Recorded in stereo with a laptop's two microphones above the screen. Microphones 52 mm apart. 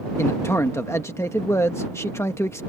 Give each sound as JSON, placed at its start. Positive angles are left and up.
{"t": 0.2, "sound": "a man speaking", "side_deg": 60}